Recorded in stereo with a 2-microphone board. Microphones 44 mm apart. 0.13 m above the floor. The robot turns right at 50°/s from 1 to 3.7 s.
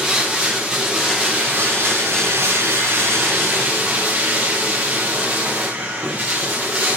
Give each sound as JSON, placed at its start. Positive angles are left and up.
{"t": 0.0, "sound": "running water", "azimuth_deg": -170, "distance_m": 6.0}